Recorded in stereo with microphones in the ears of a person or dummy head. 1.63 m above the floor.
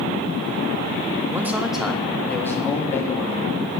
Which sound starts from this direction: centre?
A man speaking, at 1.3 s.